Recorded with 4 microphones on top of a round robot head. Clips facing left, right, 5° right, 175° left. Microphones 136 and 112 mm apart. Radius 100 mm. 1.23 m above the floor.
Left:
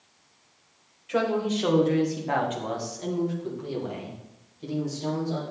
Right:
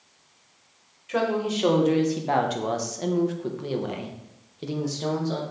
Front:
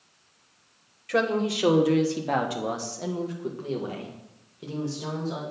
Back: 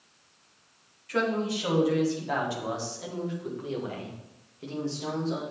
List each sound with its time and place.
1.1 s a woman speaking: straight ahead, 1.4 m; by 5.4 s 90° right, 2 m